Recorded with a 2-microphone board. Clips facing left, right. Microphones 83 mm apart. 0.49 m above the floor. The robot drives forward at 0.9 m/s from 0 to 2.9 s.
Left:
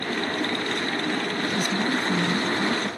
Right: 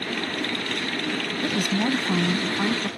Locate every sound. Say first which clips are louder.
1.4 s a woman speaking: right 4 dB; 70° right (ahead or behind); by 2.9 s 55° right (ahead or behind)